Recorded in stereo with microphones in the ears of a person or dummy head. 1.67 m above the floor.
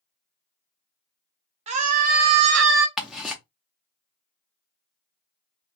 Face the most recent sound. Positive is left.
turn(degrees=-5)  # may be behind; listen again after turning